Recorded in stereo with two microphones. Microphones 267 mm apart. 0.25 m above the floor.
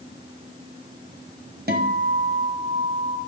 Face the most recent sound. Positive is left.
turn(degrees=-35)  # may be behind; listen again after turning